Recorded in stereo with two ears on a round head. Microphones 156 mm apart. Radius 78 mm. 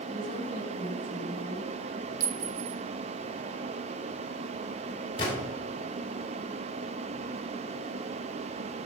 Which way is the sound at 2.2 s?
50° right (ahead or behind).